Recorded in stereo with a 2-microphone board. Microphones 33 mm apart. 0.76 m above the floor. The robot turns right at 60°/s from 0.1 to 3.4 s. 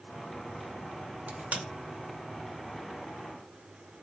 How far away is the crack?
About 0.8 m.